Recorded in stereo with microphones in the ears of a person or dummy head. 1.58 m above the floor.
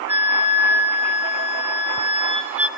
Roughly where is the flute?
Centre.